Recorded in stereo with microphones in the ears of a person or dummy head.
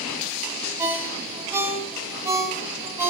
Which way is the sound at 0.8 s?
15° right (ahead or behind).